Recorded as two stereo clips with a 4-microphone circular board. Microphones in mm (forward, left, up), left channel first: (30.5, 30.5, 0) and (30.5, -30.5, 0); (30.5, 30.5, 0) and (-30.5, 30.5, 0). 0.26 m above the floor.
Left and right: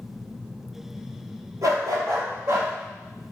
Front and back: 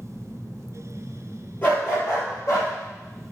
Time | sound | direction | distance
1.6 | a dog barking | 55° right | 2.5 m